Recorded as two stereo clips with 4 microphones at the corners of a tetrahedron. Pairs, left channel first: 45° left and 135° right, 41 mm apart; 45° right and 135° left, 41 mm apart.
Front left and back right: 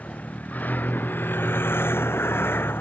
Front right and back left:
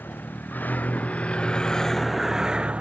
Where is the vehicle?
5° right; by 2.8 s 75° left.